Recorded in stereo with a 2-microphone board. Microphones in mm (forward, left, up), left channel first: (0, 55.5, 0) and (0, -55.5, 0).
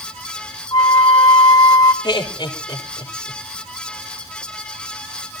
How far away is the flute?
About 1.3 m.